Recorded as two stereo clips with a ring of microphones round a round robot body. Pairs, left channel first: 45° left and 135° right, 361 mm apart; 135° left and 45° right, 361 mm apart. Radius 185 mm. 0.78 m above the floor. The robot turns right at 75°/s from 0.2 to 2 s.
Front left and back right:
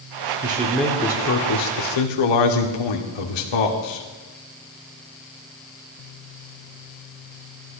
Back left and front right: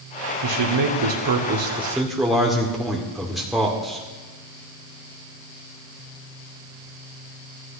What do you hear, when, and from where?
0.4 s a man speaking: 75° right, 2 m; by 4.0 s 45° left, 2 m